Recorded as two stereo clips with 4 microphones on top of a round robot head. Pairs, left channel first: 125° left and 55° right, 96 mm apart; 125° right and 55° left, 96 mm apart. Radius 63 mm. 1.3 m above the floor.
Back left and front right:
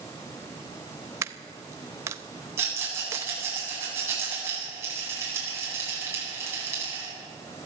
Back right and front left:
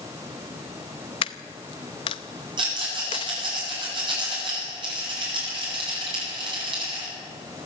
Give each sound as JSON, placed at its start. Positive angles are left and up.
{"t": 1.2, "sound": "a dropped coin", "azimuth_deg": -110, "distance_m": 0.7}
{"t": 2.6, "sound": "a rattle", "azimuth_deg": 15, "distance_m": 9.5}